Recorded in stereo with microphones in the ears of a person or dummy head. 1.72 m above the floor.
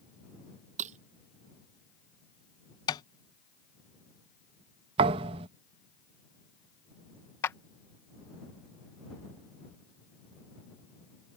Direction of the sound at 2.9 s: 25° left (ahead or behind).